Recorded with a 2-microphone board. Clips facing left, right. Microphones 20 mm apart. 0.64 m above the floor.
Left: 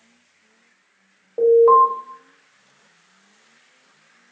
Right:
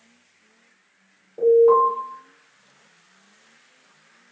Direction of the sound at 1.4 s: 75° left (ahead or behind).